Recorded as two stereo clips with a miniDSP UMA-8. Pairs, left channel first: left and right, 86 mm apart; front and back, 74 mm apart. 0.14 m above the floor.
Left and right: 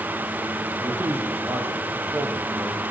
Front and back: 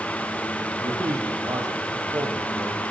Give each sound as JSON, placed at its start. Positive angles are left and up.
{"t": 0.8, "sound": "a man speaking", "azimuth_deg": -150, "distance_m": 5.0}